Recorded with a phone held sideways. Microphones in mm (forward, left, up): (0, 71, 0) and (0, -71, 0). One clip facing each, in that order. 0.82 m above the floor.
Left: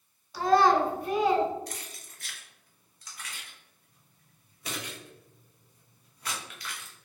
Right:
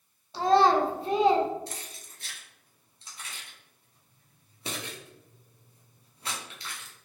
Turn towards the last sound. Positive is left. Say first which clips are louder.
# even
turn(degrees=-25)  # may be behind; listen again after turning